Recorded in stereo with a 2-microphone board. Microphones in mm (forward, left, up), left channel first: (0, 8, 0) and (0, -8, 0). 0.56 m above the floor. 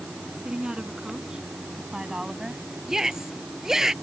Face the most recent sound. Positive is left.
turn(degrees=-30)  # may be behind; listen again after turning